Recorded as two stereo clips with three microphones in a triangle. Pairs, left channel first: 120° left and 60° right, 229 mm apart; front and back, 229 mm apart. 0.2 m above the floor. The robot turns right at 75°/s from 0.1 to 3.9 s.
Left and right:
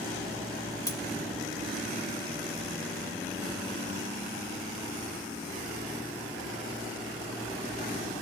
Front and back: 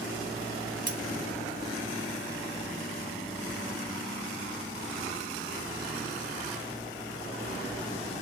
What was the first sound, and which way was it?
Cutlery clinking, 175° right.